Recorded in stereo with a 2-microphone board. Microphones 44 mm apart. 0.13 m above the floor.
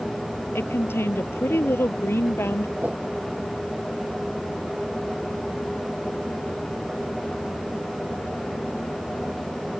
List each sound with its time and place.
0.6 s a woman speaking: 65° left (ahead or behind)
2.8 s a whoosh: 40° right (ahead or behind)